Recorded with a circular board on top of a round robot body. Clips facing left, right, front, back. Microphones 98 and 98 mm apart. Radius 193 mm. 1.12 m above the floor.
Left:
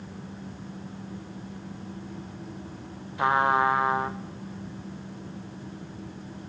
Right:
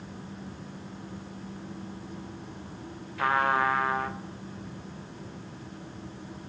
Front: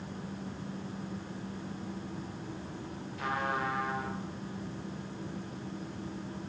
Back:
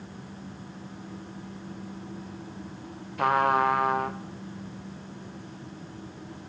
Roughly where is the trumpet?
Behind.